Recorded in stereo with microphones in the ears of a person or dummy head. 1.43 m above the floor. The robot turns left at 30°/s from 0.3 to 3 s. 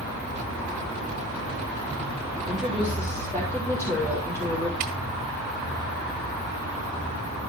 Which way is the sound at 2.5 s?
5° right (ahead or behind).